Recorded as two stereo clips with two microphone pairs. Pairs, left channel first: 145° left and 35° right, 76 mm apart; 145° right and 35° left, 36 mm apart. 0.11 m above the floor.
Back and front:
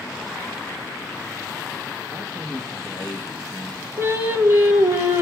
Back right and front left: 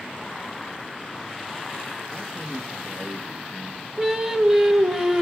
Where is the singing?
35° right, 1.6 m.